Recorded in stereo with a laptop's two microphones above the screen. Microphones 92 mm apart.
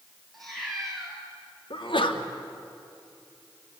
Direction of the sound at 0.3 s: 5° left (ahead or behind).